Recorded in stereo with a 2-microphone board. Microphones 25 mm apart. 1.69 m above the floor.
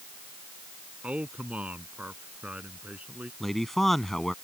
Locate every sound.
1.0 s a man speaking: 65° right (ahead or behind); by 3.3 s 70° right (ahead or behind)
3.4 s a man speaking: 15° left (ahead or behind)